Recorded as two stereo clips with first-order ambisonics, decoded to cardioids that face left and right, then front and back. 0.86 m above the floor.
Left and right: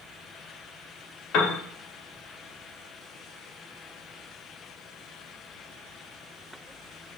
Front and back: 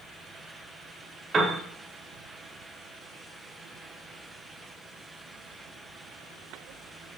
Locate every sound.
1.3 s a piano: 110° left, 0.6 m